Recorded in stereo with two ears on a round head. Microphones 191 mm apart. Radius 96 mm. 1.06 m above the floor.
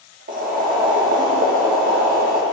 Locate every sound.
0.3 s boiling: 40° right (ahead or behind), 1.6 m